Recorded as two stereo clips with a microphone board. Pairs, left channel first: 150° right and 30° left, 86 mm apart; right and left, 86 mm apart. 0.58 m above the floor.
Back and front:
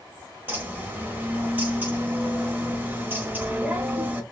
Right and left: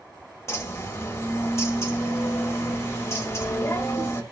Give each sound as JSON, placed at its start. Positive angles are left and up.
{"t": 0.5, "sound": "a bird", "azimuth_deg": -35, "distance_m": 1.3}